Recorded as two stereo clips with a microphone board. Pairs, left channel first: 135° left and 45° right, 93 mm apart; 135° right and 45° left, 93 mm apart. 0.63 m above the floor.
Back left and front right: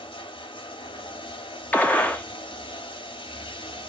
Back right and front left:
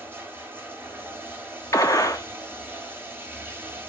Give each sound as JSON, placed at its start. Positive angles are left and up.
{"t": 0.0, "sound": "running water", "azimuth_deg": 110, "distance_m": 1.8}
{"t": 1.7, "sound": "a gunshot", "azimuth_deg": -160, "distance_m": 1.0}